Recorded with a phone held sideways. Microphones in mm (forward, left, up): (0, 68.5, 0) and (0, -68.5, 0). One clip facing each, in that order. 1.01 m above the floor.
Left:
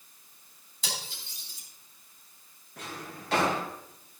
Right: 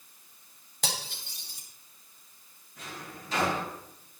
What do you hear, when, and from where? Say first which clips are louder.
0.8 s cutlery clinking: right 3 dB; 70° right (ahead or behind), 3.5 m
2.8 s a drawer: left 2 dB; 75° left (ahead or behind), 3.5 m